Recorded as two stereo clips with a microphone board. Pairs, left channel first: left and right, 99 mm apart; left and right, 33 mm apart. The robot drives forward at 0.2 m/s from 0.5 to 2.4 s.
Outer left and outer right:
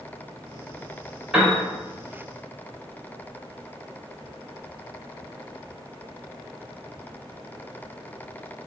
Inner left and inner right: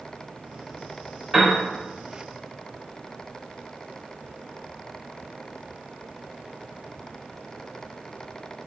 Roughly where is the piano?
Centre.